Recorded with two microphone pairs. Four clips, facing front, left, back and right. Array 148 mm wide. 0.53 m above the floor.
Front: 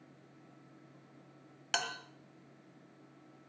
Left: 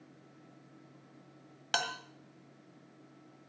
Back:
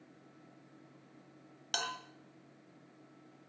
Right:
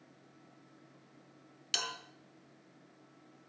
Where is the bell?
75° left, 1.8 m.